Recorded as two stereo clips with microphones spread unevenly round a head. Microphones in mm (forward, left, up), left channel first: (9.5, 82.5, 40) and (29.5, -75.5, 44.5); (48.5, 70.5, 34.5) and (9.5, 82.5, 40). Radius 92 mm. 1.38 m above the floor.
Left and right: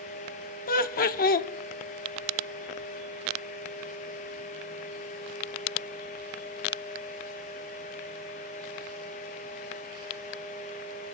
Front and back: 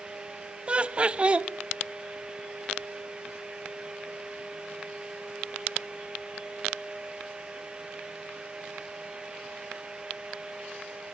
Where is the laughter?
100° left, 0.9 m.